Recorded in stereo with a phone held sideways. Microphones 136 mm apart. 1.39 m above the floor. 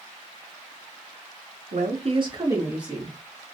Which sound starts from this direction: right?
A woman speaking, at 1.7 s.